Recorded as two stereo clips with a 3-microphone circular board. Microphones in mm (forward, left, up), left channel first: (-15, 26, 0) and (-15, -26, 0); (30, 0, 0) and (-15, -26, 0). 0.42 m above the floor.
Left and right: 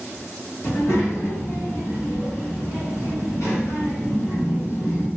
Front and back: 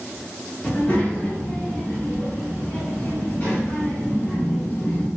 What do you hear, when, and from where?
0.6 s a child speaking: 80° left, 1.3 m